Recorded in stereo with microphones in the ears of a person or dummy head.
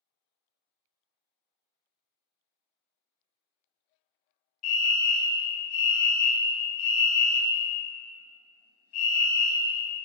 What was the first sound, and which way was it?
A fire alarm, 40° left (ahead or behind).